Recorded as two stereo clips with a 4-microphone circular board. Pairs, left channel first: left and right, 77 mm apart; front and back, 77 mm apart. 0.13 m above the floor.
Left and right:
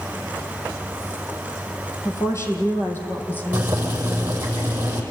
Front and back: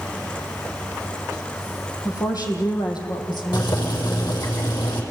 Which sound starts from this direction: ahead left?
A woman speaking, at 2.0 s.